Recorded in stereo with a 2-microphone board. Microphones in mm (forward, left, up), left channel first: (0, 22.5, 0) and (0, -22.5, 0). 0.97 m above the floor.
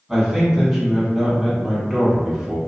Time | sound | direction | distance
0.1 | a man speaking | 5° right (ahead or behind) | 1.7 m